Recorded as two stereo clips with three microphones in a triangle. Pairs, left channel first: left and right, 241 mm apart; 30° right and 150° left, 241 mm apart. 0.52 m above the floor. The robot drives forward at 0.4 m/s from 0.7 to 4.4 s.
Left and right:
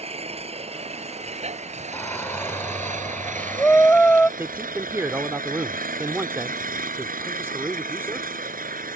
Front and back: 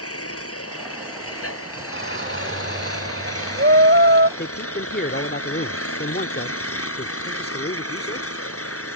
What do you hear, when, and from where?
0.0 s an engine running: 25° right; by 8.9 s 40° right
1.9 s a shout: 170° left; by 4.3 s 175° left
4.4 s a man speaking: 10° right